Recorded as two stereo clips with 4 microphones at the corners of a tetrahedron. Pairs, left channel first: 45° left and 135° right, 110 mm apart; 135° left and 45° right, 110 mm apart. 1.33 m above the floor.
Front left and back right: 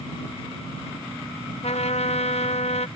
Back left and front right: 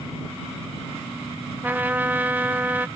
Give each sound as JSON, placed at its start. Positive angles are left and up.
{"t": 1.6, "sound": "a trumpet", "azimuth_deg": 30}